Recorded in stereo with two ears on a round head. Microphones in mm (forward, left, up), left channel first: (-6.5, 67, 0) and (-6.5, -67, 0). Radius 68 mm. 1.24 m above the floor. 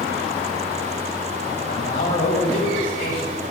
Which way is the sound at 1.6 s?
65° left (ahead or behind).